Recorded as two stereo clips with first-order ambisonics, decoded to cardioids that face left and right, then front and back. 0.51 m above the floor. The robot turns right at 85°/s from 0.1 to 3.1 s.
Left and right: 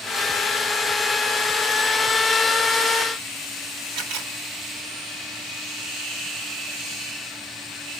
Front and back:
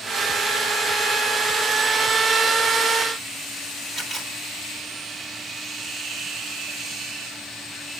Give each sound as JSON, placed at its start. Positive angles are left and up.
{"t": 3.9, "sound": "a camera shutter", "azimuth_deg": -80, "distance_m": 2.0}